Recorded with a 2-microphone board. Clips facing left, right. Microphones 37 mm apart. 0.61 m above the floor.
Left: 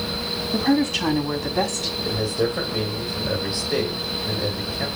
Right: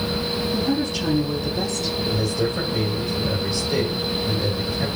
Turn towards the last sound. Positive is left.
turn(degrees=15)  # may be behind; listen again after turning